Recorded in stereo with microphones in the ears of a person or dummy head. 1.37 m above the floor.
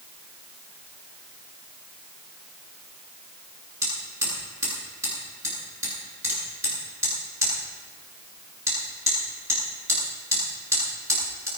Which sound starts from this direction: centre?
Hammering, at 3.8 s.